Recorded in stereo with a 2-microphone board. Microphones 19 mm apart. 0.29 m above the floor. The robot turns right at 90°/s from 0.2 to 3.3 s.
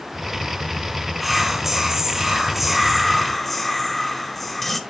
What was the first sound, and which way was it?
Whispering, 5° right (ahead or behind).